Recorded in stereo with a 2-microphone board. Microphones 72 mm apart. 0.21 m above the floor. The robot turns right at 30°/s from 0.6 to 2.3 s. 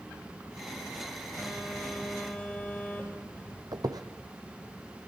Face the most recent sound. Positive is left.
turn(degrees=-60)  # may be behind; listen again after turning